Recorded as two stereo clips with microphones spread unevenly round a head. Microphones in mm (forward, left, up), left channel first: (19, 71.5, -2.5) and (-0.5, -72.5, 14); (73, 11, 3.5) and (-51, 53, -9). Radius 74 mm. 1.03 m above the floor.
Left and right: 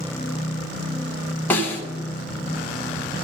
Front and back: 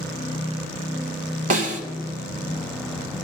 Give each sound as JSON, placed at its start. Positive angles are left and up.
{"t": 1.5, "sound": "a snare drum", "azimuth_deg": 165, "distance_m": 1.4}